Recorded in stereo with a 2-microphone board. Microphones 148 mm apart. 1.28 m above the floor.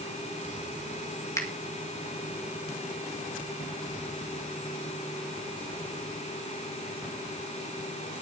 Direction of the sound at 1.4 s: 20° left (ahead or behind).